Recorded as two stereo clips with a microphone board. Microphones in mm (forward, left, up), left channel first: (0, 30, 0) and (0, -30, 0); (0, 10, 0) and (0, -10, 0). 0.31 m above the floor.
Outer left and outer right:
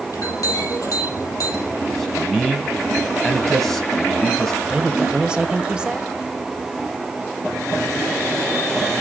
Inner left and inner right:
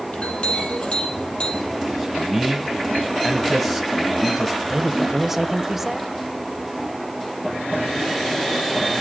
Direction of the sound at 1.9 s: Centre (ahead or behind).